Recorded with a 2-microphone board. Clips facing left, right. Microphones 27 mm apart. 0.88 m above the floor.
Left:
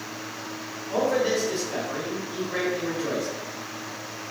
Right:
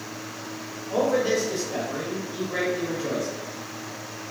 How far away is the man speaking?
About 1.4 m.